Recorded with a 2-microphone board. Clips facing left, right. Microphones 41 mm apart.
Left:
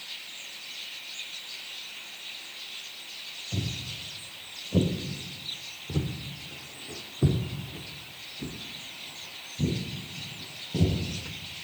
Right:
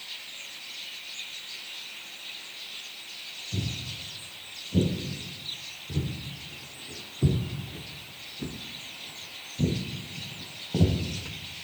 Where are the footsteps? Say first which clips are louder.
Even; 90° left, 2 m; by 11.6 s 55° right (ahead or behind), 2 m.